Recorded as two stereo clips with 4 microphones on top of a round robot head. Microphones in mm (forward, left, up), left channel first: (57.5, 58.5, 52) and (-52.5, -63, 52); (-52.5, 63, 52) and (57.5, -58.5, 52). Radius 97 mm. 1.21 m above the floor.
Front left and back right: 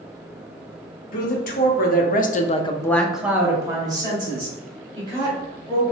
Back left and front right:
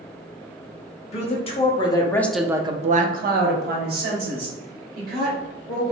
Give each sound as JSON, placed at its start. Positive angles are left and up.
{"t": 1.1, "sound": "a woman speaking", "azimuth_deg": 80, "distance_m": 1.2}